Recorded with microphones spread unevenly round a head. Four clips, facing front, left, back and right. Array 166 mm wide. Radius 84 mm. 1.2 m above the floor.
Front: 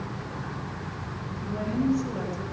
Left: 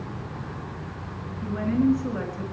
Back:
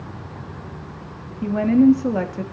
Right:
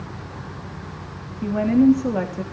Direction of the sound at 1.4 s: 140° right.